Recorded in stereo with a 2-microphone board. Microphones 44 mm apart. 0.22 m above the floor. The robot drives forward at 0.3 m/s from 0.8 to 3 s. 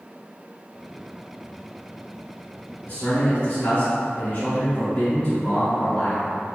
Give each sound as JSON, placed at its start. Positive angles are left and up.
{"t": 2.9, "sound": "a man speaking", "side_deg": 35, "distance_m": 1.8}